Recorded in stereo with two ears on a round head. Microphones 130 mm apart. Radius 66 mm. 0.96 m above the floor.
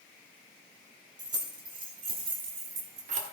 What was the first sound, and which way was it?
Keys jangling, 30° right (ahead or behind).